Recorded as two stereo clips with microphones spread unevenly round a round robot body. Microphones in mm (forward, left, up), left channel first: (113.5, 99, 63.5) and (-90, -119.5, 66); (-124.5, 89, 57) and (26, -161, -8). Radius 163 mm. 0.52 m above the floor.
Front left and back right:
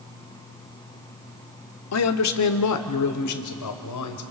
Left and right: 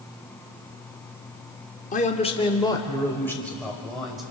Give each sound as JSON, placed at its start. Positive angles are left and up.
{"t": 1.9, "sound": "a man speaking", "azimuth_deg": 50, "distance_m": 1.2}